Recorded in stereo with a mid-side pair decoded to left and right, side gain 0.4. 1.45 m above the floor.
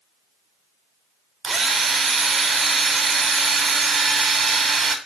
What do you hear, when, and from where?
1.4 s a drill: 40° right, 3 m